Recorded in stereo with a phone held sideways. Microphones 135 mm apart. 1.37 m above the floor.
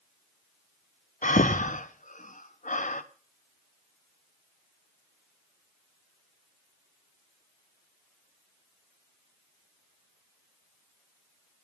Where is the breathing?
70° left (ahead or behind), 0.9 m.